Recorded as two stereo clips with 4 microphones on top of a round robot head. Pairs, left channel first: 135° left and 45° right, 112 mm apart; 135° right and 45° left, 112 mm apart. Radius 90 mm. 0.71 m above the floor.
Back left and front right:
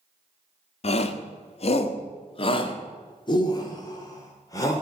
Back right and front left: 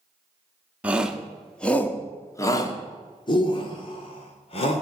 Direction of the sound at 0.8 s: 125° left.